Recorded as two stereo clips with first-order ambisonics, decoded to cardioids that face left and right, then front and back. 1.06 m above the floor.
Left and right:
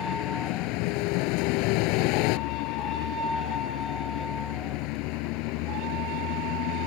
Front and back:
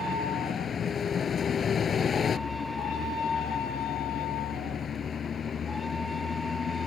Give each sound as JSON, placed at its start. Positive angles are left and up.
{"t": 0.0, "sound": "a vehicle", "azimuth_deg": 70}